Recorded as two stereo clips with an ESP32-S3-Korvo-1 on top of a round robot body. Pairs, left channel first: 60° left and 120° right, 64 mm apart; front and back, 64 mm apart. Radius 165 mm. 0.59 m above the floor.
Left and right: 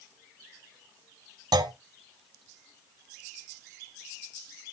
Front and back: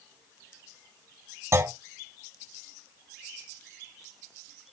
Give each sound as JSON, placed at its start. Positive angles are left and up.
{"t": 1.5, "sound": "a clunk", "azimuth_deg": -135, "distance_m": 1.1}